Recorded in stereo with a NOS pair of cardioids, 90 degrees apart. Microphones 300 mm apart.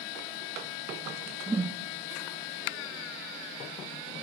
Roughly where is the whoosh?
Ahead.